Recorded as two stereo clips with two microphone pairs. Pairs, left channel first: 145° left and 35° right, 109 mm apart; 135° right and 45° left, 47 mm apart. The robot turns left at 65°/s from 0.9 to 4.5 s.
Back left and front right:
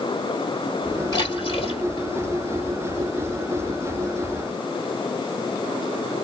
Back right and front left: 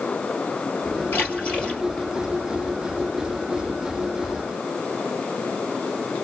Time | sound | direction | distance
1.1 | a splash | 170° right | 3 m